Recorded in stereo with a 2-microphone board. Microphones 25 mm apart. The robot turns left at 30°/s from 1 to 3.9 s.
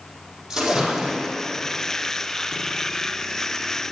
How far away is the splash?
About 4.5 m.